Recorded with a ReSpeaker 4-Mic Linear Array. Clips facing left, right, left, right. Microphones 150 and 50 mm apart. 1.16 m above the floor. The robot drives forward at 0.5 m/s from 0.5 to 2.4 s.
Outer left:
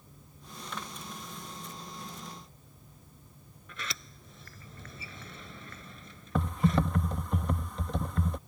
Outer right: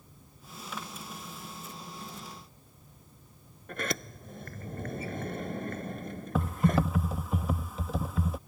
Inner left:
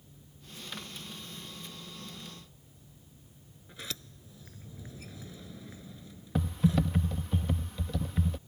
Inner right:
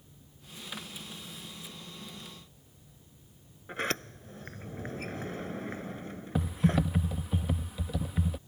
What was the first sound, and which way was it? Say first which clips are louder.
A sliding door: outer right 10 dB, inner right 11 dB; 55° right (ahead or behind).